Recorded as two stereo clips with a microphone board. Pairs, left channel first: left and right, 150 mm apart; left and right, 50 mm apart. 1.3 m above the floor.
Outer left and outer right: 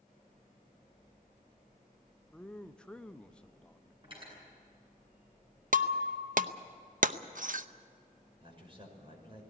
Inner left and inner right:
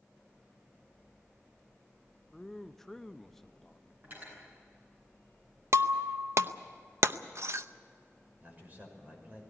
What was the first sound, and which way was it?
A man speaking, 5° left (ahead or behind).